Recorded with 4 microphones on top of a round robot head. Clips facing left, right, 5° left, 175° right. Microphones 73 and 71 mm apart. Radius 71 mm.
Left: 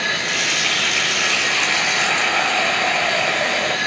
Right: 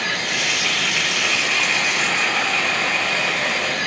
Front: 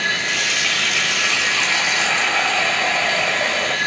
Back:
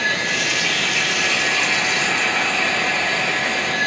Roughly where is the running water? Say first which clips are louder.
Left 1 dB, even; ahead left.